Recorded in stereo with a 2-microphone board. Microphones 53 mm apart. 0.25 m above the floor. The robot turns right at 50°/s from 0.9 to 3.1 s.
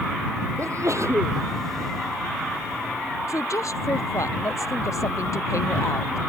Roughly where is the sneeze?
Right.